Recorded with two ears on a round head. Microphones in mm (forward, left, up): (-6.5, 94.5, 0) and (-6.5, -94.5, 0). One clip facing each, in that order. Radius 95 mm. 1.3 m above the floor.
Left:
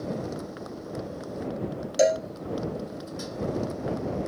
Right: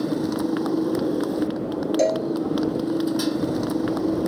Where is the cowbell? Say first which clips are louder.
Left 1 dB; 10° left (ahead or behind).